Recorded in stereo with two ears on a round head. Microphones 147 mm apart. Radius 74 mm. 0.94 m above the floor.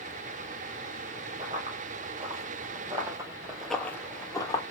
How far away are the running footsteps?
About 2 m.